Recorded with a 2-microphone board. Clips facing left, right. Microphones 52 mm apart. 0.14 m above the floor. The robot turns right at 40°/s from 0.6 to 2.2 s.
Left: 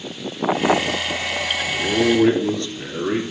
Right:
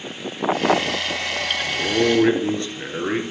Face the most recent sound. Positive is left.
turn(degrees=-30)  # may be behind; listen again after turning